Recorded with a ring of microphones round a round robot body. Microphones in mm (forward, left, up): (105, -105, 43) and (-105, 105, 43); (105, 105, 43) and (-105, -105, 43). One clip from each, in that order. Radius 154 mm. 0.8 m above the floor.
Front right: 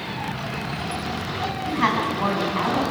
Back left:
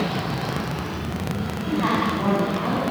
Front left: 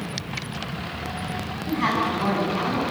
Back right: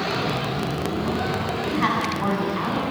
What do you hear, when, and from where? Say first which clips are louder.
1.7 s a woman speaking: even, front left 1 dB; 60° right, 8 m